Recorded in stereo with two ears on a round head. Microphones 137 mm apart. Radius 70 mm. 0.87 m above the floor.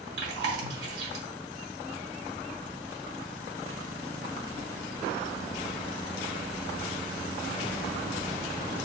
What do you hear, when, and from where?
0.2 s chewing: 80° right, 1.6 m